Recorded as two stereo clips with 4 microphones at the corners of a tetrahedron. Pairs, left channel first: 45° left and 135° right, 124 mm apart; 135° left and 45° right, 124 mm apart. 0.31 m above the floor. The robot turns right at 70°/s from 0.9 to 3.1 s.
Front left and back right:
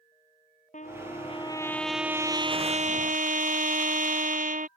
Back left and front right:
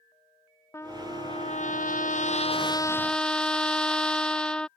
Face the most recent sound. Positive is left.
turn(degrees=-140)